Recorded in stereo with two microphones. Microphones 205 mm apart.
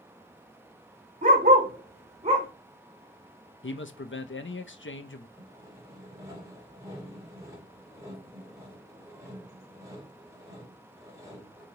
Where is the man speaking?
70° left (ahead or behind), 0.5 m.